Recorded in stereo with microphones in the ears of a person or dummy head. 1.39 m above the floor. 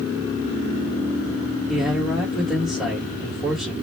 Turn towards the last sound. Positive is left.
turn(degrees=-5)  # may be behind; listen again after turning